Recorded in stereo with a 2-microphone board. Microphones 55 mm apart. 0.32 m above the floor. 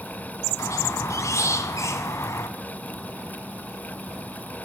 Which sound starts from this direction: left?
A squeak, at 0.6 s.